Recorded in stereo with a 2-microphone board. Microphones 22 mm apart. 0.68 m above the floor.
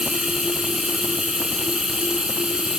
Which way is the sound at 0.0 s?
45° right (ahead or behind).